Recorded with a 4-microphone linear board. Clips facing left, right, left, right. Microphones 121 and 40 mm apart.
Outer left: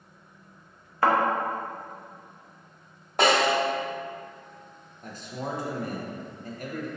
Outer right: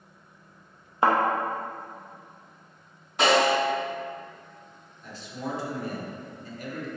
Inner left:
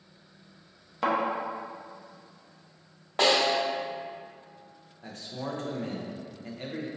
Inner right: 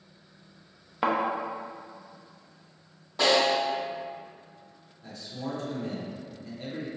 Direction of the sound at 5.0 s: 45° left (ahead or behind).